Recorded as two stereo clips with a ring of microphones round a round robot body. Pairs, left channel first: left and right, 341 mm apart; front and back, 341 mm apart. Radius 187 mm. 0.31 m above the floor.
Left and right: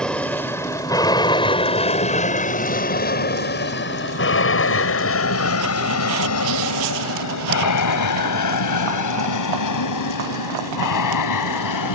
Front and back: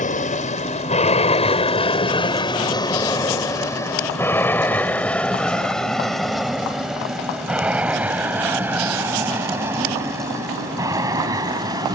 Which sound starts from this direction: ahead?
An aircraft, at 0.0 s.